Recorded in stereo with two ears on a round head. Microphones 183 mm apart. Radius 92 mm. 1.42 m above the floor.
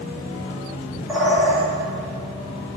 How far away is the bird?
About 2.5 m.